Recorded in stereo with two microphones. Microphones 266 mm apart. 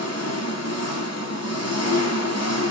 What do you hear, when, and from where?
0.0 s an engine running: 70° left (ahead or behind), 0.8 m